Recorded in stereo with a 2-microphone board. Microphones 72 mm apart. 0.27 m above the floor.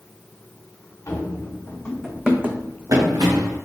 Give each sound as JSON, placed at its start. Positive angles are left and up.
{"t": 1.1, "sound": "running footsteps", "side_deg": 40, "distance_m": 1.6}